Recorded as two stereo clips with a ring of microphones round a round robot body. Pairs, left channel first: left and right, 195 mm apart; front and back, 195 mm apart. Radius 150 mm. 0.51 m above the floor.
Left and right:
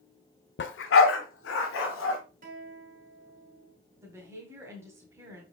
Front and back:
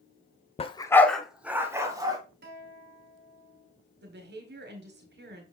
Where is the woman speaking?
165° right, 2.0 m.